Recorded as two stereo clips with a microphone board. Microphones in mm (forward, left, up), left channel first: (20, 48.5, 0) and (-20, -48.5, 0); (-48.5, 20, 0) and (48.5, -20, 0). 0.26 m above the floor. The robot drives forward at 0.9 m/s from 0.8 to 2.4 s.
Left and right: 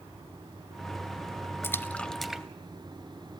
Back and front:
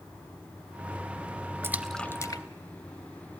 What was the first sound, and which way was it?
A splash, 20° left.